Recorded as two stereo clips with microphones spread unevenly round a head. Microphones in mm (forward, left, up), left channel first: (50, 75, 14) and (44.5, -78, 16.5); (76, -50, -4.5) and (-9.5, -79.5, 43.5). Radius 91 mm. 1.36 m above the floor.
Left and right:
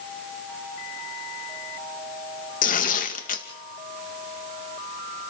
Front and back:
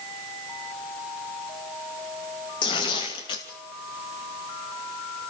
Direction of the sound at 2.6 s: 55° left.